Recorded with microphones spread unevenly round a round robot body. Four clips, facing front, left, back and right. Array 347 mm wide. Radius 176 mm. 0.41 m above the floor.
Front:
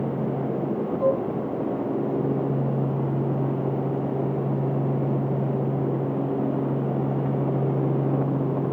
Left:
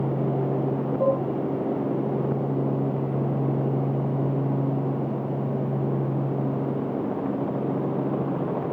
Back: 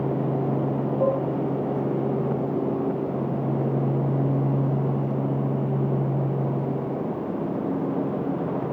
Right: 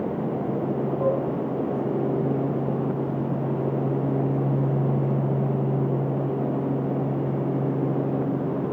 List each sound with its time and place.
1.0 s dishes clattering: 110° left, 2.5 m